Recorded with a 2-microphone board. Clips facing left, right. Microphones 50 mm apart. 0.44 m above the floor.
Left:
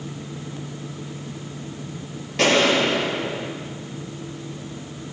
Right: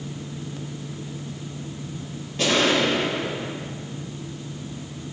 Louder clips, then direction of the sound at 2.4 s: Left 3 dB; 80° left.